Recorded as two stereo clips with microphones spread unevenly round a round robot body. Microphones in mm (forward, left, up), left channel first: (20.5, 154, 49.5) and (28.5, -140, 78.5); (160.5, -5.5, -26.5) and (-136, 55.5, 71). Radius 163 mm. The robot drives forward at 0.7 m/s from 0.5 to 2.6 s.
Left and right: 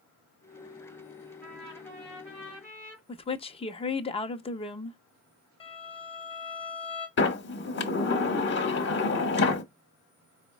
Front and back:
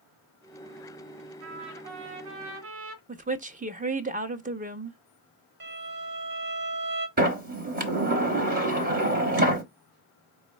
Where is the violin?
155° left, 0.9 m.